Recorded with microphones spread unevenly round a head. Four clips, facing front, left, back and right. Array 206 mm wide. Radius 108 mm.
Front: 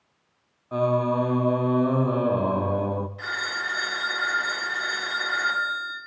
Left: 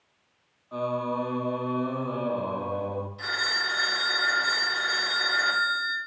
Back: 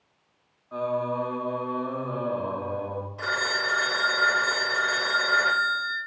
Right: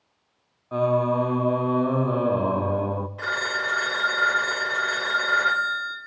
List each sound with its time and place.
0.7 s singing: 40° right, 0.9 m
3.2 s a phone ringing: 135° right, 2.5 m